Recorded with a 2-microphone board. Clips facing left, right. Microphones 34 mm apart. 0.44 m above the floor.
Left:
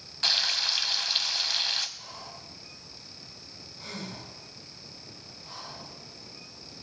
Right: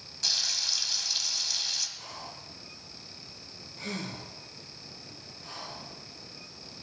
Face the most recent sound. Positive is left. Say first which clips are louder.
# right 1 dB
turn(degrees=-75)  # may be behind; listen again after turning